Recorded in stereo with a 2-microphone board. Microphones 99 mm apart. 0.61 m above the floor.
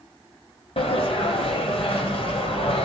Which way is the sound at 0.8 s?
80° left.